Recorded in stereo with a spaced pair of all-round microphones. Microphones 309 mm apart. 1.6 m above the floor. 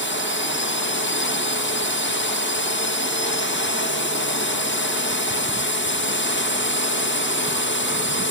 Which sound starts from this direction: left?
A drone, at 0.0 s.